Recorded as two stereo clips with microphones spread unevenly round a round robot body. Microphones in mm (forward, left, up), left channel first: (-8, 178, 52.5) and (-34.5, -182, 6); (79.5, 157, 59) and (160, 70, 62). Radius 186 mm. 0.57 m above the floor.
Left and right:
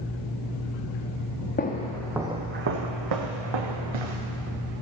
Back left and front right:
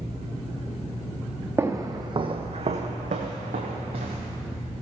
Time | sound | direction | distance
1.6 | footsteps | 25° left | 1.6 m